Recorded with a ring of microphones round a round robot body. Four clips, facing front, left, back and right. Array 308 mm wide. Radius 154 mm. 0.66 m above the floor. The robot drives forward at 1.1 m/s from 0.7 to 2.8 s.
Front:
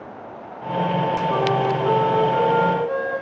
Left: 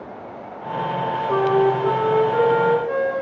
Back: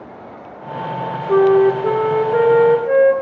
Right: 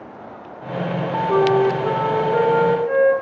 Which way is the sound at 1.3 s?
175° right.